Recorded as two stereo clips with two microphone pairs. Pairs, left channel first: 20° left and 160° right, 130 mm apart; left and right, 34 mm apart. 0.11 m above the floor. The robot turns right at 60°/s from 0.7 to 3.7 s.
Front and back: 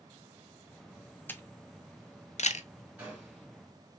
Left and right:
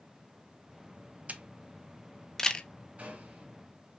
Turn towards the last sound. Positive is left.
turn(degrees=-45)